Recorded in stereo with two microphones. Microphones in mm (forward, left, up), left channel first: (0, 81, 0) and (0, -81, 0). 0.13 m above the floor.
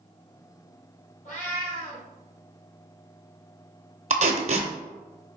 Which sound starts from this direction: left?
A cat meowing, at 1.2 s.